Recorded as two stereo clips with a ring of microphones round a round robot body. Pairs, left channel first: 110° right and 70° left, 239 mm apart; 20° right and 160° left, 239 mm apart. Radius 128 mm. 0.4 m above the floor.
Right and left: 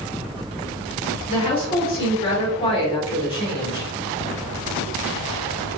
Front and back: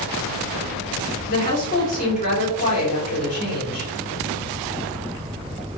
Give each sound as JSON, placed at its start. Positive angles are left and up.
{"t": 1.3, "sound": "a woman speaking", "azimuth_deg": -60, "distance_m": 1.7}